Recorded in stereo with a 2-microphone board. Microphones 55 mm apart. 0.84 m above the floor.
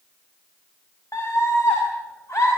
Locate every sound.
1.1 s a scream: 55° left (ahead or behind), 5.5 m; by 2.5 s 60° left (ahead or behind), 6 m